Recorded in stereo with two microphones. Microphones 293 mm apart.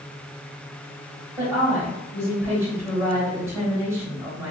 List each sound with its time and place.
1.4 s a woman speaking: 10° right (ahead or behind), 1.4 m